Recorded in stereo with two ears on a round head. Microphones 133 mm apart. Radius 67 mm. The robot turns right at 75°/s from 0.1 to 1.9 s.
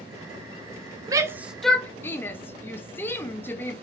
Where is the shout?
25° right (ahead or behind), 0.6 m; by 3.8 s 15° left (ahead or behind), 0.6 m.